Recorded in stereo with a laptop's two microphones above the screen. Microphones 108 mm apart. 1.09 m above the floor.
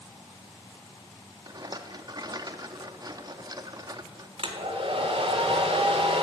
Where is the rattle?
40° right (ahead or behind), 0.7 m.